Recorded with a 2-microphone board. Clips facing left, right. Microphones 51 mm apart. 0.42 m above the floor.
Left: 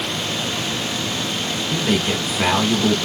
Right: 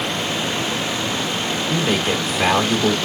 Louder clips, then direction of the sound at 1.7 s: Even; centre (ahead or behind).